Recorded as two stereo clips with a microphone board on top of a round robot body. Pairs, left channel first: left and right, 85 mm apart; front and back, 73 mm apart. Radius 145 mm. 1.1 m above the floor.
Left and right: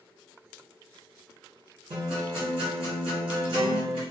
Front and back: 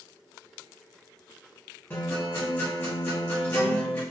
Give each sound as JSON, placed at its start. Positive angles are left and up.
{"t": 1.9, "sound": "a guitar", "azimuth_deg": -70, "distance_m": 0.9}